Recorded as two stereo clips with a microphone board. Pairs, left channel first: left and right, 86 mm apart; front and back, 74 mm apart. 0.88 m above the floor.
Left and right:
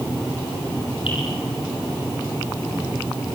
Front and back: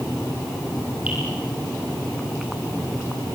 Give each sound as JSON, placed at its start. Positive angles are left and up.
{"t": 1.1, "sound": "dripping", "azimuth_deg": 110, "distance_m": 8.0}